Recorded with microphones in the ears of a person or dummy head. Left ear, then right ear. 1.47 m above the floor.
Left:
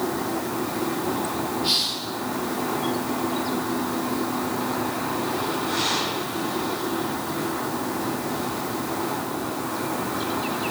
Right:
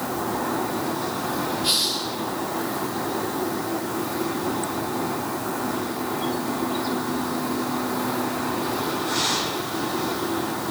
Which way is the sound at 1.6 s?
Centre (ahead or behind).